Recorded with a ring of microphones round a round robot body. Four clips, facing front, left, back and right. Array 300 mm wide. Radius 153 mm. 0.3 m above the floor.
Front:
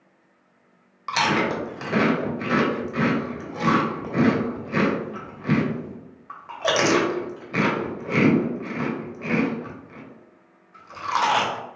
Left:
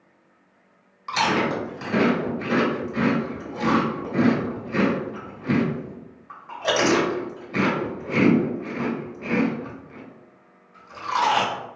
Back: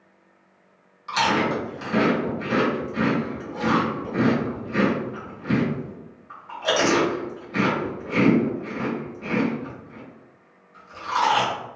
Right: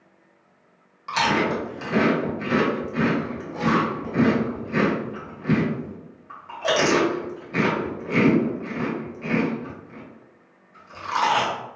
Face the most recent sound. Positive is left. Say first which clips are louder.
# even, even
turn(degrees=0)